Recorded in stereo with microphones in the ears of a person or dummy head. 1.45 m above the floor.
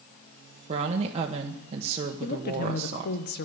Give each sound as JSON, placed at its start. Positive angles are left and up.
{"t": 0.7, "sound": "a woman speaking", "side_deg": -35, "distance_m": 1.2}
{"t": 2.2, "sound": "a woman speaking", "side_deg": 50, "distance_m": 1.0}